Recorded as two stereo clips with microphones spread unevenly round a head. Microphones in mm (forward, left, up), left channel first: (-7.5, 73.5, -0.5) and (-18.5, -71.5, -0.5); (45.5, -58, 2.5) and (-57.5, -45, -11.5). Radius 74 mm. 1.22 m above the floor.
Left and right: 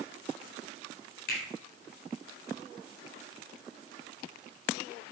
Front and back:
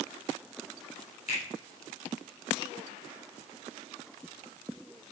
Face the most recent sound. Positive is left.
turn(degrees=50)